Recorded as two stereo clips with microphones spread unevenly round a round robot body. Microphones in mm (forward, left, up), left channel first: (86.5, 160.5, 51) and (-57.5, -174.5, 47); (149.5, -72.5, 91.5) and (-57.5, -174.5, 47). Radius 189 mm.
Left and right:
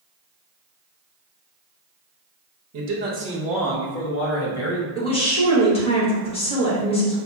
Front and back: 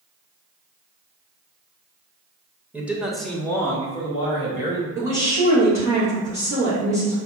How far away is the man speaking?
About 0.9 m.